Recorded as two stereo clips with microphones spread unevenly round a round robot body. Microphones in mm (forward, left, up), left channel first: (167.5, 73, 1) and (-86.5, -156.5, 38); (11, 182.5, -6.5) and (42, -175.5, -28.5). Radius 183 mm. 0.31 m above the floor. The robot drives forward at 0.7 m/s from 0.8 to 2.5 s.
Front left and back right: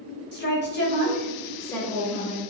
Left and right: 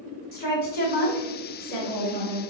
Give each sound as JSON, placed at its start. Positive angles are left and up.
{"t": 0.3, "sound": "a woman speaking", "azimuth_deg": 45, "distance_m": 1.4}